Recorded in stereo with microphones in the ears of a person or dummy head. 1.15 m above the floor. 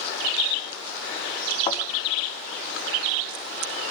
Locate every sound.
1.7 s a thud: 25° left (ahead or behind), 4.5 m